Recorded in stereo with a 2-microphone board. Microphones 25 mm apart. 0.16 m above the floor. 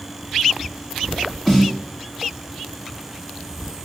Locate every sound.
1.5 s a snare drum: 15° left (ahead or behind), 1.9 m